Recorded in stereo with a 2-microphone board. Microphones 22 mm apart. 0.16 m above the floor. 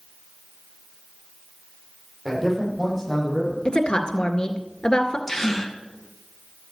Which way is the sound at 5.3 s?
15° left (ahead or behind).